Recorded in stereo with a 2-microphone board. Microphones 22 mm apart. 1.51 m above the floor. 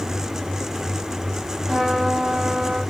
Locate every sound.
1.7 s a trumpet: 15° left (ahead or behind), 1.9 m